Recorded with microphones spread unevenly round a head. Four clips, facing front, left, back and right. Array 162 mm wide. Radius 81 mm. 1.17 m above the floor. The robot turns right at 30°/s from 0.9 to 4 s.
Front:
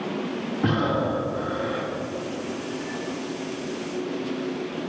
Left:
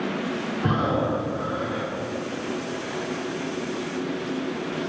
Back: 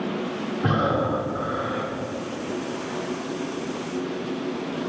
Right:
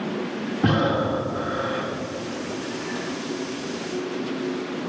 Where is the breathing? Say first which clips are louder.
Right 3 dB, back 1 dB; 55° right, 3.5 m; by 1.9 s 25° right, 3.5 m.